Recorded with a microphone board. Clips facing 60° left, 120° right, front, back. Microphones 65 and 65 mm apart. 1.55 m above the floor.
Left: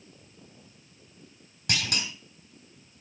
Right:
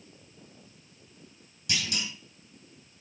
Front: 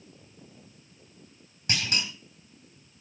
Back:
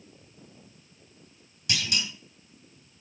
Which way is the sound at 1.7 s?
45° left.